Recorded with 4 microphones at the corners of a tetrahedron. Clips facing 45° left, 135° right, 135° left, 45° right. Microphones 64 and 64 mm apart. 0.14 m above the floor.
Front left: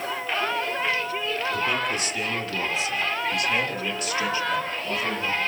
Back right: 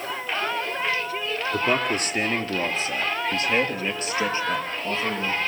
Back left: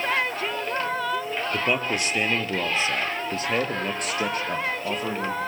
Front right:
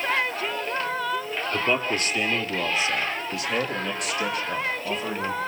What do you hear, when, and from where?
1.5 s a man speaking: 155° right, 2 m; by 5.4 s 165° left, 4.5 m